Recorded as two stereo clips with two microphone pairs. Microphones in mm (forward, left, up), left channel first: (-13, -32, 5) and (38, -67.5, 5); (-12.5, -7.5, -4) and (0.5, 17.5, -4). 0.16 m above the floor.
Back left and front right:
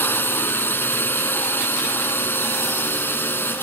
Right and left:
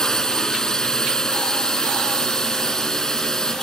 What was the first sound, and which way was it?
A drone, straight behind.